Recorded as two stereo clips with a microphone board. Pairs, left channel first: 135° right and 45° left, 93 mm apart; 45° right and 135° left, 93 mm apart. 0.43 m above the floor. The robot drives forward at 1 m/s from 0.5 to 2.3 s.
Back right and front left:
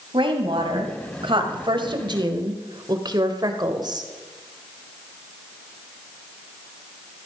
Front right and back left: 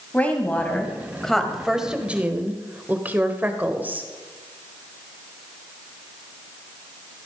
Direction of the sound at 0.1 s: 30° left.